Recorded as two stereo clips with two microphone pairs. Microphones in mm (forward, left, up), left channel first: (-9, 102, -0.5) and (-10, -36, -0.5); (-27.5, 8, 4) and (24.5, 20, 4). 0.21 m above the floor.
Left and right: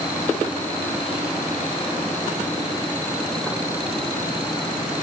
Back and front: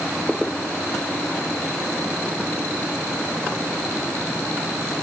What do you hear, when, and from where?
Only background noise.